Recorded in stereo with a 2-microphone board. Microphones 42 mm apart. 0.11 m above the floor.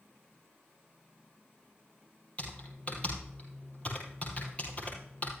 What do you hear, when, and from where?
2.4 s typing on a keyboard: 30° left (ahead or behind), 5 m